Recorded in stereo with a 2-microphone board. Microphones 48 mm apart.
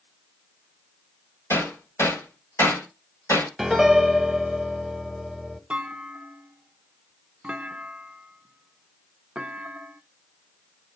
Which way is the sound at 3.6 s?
Centre (ahead or behind).